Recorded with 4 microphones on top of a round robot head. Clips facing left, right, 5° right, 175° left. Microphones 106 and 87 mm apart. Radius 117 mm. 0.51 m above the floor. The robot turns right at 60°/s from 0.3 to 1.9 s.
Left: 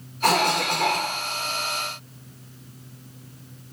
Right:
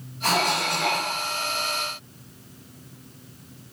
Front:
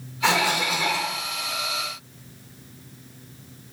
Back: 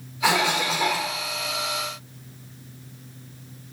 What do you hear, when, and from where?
0.2 s a cough: 95° left, 1.6 m; by 1.1 s 145° left, 1.6 m